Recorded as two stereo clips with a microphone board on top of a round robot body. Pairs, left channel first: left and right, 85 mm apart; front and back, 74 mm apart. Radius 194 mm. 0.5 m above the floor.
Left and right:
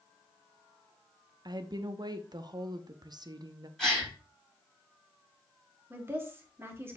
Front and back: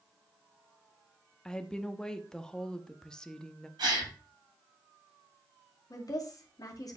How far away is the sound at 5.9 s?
About 2 m.